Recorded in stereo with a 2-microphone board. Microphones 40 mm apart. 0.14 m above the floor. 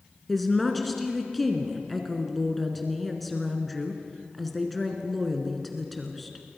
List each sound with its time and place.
0.3 s a woman speaking: 5° left (ahead or behind), 2 m